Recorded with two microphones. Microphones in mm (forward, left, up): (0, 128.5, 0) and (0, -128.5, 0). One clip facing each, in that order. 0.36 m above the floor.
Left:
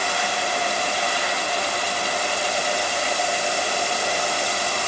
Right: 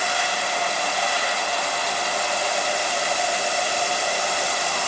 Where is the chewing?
I don't hear chewing.